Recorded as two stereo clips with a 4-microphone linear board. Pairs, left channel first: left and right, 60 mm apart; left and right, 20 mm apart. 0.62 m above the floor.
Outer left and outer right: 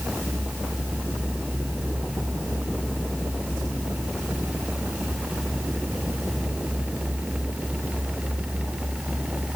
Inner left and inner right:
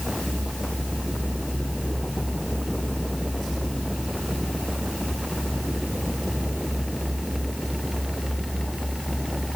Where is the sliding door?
I don't hear a sliding door.